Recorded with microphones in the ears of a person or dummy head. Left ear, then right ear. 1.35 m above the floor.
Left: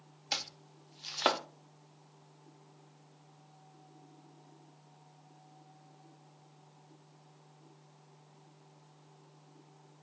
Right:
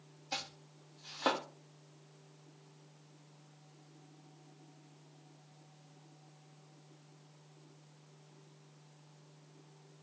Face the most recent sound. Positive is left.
turn(degrees=60)  # may be behind; listen again after turning